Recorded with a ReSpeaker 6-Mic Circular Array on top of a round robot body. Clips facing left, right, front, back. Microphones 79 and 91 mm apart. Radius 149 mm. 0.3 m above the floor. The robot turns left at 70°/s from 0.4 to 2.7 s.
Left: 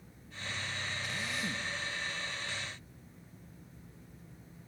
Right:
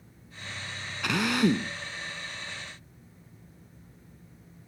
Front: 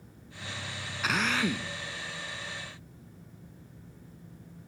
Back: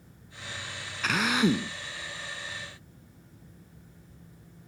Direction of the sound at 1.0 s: 85° right.